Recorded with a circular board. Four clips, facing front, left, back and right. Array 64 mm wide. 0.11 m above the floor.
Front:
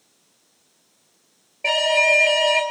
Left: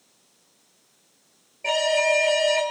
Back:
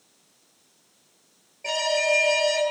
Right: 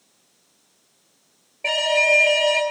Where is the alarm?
30° right, 3 m.